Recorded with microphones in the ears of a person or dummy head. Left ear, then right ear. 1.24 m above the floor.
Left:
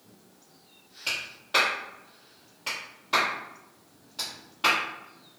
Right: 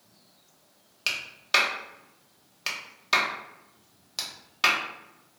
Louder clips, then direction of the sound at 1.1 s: Right 3 dB; 55° right (ahead or behind).